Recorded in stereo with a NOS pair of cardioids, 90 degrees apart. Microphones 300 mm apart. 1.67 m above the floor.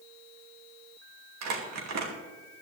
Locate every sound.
1.4 s crumpling: 65° right, 3 m